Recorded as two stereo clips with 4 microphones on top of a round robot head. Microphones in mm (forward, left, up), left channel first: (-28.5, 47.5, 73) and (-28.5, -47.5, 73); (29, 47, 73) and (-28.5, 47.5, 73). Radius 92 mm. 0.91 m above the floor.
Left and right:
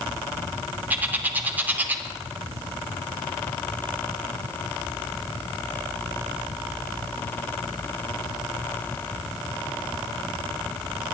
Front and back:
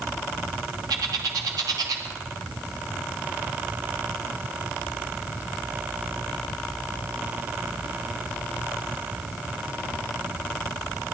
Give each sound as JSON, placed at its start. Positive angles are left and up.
{"t": 0.9, "sound": "a bird", "azimuth_deg": -160, "distance_m": 0.8}